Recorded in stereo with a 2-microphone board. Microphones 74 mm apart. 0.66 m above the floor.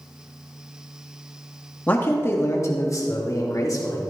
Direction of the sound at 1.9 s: 25° left (ahead or behind).